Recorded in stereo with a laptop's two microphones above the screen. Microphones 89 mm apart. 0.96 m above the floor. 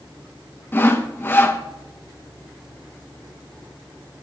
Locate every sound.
0.7 s sawing: 25° left (ahead or behind), 0.8 m